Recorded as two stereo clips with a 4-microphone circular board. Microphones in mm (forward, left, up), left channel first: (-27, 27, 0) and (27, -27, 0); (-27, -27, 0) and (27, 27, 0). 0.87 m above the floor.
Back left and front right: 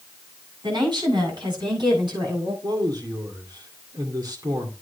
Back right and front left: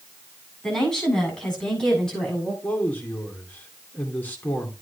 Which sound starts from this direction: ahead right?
A woman speaking, at 0.6 s.